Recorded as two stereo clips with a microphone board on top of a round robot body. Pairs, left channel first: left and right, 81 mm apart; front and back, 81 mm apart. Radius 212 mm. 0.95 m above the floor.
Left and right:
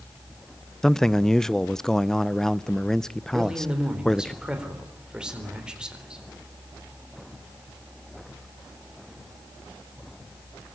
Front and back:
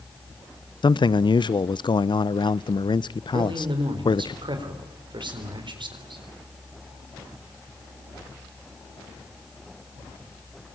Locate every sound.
0.8 s a man speaking: 5° left, 0.7 m
3.3 s a man speaking: 170° right, 4 m